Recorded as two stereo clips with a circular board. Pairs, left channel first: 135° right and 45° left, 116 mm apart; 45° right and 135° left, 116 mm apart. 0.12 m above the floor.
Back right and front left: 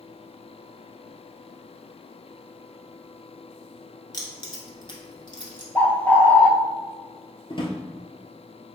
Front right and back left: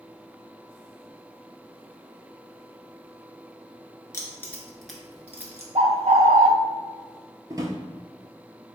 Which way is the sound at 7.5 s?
170° right.